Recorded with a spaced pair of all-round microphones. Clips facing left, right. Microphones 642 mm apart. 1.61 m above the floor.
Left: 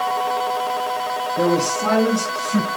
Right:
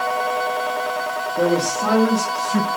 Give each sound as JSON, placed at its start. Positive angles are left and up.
{"t": 1.4, "sound": "a man speaking", "side_deg": 25, "distance_m": 5.5}